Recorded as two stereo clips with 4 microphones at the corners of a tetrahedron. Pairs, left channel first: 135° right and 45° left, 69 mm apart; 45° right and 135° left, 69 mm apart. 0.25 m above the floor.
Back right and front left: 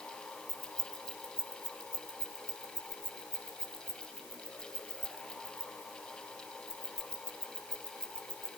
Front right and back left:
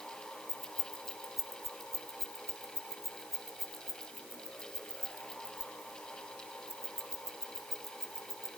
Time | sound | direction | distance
0.5 | keys jangling | 60° right | 1.5 m